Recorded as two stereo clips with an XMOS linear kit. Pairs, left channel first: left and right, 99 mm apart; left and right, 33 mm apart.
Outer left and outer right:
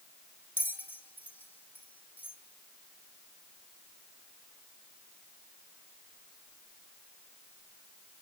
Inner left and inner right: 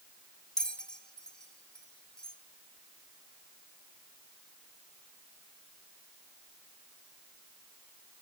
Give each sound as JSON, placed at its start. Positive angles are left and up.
{"t": 0.6, "sound": "a bell", "side_deg": 20, "distance_m": 0.8}